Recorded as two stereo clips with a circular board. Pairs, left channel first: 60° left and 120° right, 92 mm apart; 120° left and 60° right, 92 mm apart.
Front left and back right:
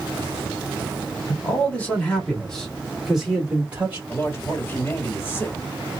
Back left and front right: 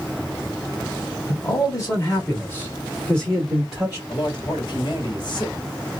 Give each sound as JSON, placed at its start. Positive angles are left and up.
{"t": 1.3, "sound": "a man speaking", "azimuth_deg": 125, "distance_m": 1.9}
{"t": 4.1, "sound": "a man speaking", "azimuth_deg": 115, "distance_m": 1.6}